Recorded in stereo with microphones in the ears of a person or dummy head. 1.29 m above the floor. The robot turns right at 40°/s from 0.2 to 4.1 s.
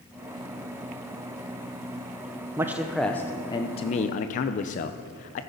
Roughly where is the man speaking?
Ahead.